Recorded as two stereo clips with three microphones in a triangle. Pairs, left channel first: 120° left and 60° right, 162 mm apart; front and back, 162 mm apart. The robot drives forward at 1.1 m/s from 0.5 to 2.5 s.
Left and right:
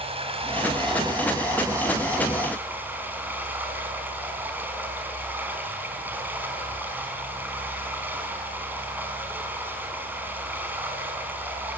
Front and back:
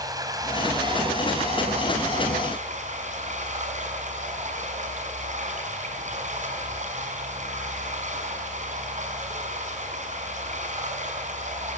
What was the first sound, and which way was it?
Running water, 115° right.